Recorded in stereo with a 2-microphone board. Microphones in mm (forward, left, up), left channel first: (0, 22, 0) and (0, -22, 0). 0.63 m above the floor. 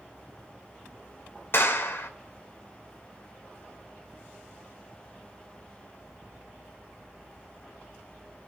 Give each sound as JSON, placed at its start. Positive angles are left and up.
{"t": 1.5, "sound": "a clap", "side_deg": 55, "distance_m": 1.9}